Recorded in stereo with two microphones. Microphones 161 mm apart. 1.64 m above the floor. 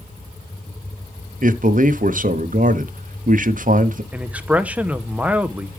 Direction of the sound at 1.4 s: 55° right (ahead or behind).